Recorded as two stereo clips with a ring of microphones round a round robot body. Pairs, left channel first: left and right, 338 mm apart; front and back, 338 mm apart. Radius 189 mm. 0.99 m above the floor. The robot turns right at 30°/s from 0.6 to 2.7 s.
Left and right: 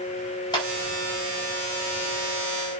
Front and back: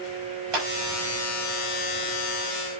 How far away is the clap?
About 5.5 m.